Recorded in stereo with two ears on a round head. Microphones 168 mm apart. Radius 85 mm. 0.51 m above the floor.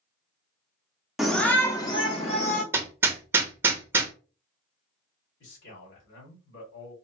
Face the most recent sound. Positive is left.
turn(degrees=70)  # may be behind; listen again after turning